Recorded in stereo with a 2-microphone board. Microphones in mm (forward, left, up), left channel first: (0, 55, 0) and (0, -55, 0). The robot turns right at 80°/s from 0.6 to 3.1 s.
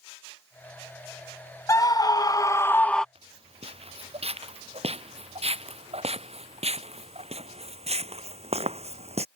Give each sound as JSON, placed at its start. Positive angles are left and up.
{"t": 1.7, "sound": "a scream", "azimuth_deg": 60}
{"t": 3.1, "sound": "footsteps", "side_deg": -65}